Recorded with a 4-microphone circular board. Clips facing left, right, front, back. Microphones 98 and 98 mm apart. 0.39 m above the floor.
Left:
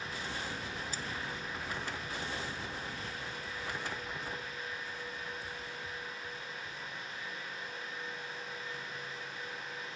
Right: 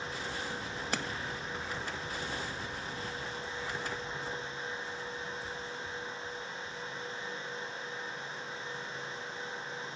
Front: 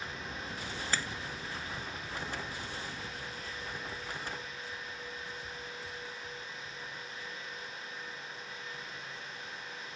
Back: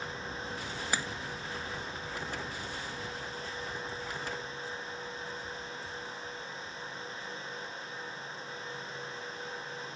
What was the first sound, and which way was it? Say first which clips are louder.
A splash: right 6 dB, back 1 dB; 105° right.